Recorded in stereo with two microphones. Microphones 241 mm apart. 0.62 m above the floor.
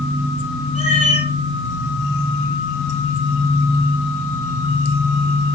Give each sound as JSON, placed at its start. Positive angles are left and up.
{"t": 0.8, "sound": "a cat meowing", "side_deg": -80, "distance_m": 4.5}